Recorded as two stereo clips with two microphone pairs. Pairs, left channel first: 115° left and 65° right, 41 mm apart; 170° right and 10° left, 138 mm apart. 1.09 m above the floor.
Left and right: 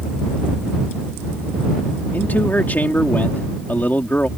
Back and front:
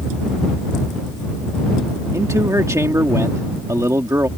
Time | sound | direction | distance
2.1 | a man speaking | 75° left | ?